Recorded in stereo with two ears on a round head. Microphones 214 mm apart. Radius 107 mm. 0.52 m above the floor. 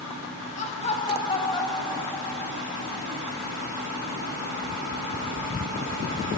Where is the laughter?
30° left (ahead or behind), 3.5 m; by 3.1 s 10° left (ahead or behind), 5 m.